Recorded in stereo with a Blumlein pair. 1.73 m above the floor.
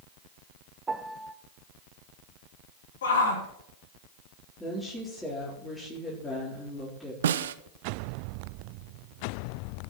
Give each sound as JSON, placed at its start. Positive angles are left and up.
{"t": 0.9, "sound": "a piano", "azimuth_deg": -15, "distance_m": 0.7}
{"t": 3.0, "sound": "a shout", "azimuth_deg": 60, "distance_m": 3.5}
{"t": 4.6, "sound": "a woman speaking", "azimuth_deg": 5, "distance_m": 3.5}
{"t": 7.2, "sound": "a snare drum", "azimuth_deg": -60, "distance_m": 0.6}